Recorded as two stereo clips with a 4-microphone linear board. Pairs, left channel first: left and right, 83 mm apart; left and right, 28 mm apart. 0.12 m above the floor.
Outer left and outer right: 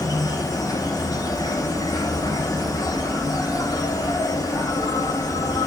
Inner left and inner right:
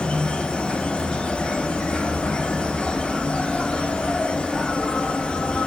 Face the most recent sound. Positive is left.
turn(degrees=50)  # may be behind; listen again after turning